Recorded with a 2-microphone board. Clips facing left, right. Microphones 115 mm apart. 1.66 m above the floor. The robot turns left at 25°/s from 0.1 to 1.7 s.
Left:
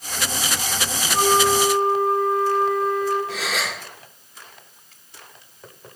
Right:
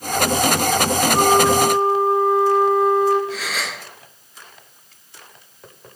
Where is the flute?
20° right (ahead or behind), 2.5 m; by 3.2 s 35° right (ahead or behind), 2.5 m.